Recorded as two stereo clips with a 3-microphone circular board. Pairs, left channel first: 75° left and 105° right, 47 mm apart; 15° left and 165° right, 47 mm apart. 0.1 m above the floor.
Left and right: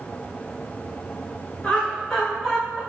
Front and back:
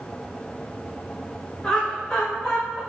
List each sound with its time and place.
1.6 s laughter: 65° left, 1.2 m; by 2.8 s 15° right, 1.3 m